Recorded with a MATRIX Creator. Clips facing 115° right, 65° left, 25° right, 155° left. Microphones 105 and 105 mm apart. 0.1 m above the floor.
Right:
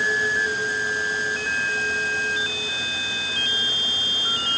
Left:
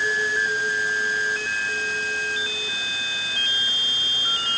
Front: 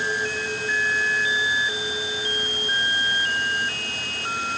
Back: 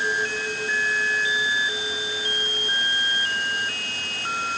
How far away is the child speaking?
No child speaking in this recording.